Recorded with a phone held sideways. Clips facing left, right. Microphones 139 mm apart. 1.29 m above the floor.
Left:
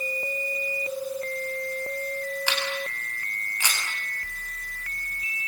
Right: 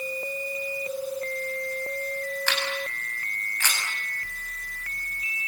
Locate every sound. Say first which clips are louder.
2.5 s a camera shutter: even; 15° left (ahead or behind), 8 m